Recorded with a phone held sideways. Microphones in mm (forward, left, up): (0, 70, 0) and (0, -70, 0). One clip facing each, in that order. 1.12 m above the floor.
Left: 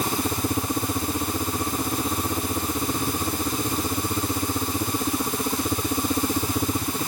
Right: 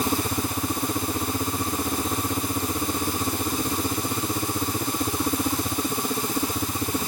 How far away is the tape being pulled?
No tape being pulled in this recording.